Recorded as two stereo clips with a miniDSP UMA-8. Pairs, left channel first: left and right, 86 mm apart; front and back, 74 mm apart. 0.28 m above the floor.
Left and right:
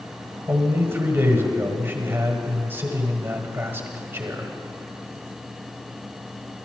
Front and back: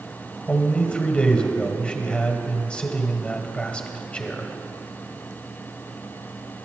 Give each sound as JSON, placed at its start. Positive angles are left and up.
{"t": 0.5, "sound": "a man speaking", "azimuth_deg": -55, "distance_m": 1.6}